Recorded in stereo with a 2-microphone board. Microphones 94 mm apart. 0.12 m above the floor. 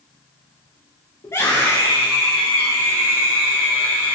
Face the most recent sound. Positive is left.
turn(degrees=25)  # may be behind; listen again after turning